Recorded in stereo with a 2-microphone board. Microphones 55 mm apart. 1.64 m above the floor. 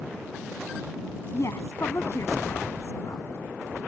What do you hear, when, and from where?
1.3 s a woman speaking: 55° left (ahead or behind)